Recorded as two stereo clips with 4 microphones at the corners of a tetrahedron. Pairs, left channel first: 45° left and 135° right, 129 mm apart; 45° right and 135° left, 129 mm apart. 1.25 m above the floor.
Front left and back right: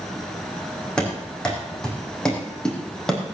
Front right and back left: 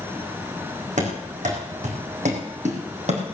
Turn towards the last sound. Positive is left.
turn(degrees=130)